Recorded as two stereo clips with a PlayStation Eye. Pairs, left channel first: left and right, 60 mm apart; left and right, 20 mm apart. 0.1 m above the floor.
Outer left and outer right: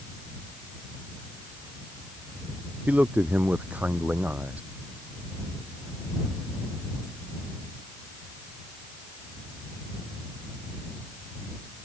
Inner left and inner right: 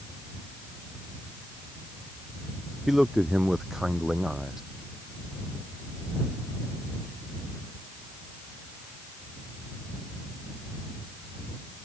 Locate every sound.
2.9 s a man speaking: 25° right (ahead or behind)